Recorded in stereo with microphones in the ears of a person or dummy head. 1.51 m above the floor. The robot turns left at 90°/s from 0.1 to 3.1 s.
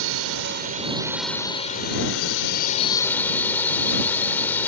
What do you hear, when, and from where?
0.0 s a drone: 75° right; by 4.7 s 15° left